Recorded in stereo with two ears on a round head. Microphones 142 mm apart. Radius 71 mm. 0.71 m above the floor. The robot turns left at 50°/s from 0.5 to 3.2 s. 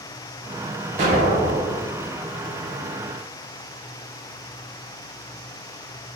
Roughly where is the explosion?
Ahead right.